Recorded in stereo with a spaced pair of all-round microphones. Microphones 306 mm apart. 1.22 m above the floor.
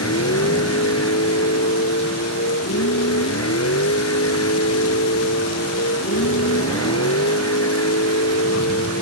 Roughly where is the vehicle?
Left.